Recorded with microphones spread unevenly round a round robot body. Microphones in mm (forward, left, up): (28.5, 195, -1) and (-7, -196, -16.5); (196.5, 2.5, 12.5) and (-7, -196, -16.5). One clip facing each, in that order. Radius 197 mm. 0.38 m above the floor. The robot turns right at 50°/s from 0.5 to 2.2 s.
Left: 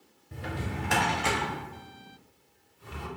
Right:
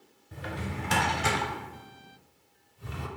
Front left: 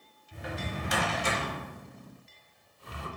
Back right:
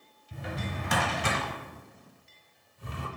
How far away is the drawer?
About 0.6 m.